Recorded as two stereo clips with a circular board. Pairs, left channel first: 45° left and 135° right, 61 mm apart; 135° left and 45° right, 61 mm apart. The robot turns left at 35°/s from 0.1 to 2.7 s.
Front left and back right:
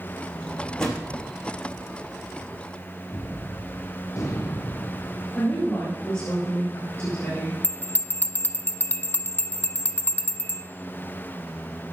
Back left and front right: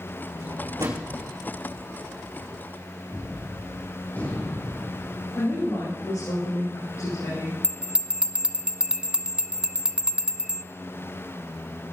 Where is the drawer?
20° right, 4 m; by 1.1 s 45° right, 4 m.